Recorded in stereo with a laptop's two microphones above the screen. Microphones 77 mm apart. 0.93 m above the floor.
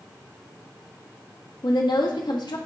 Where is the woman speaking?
70° left (ahead or behind), 1.2 m.